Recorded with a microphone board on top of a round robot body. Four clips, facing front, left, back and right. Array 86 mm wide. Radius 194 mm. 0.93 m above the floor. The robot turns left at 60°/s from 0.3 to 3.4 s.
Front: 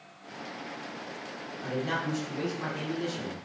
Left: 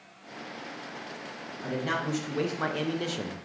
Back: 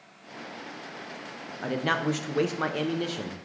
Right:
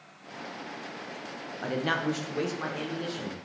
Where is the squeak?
I don't hear a squeak.